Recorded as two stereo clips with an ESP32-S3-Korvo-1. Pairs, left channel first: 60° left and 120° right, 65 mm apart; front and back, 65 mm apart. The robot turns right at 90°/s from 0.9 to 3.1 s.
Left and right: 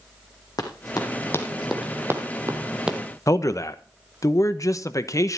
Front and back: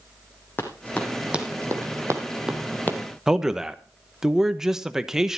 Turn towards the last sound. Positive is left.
turn(degrees=100)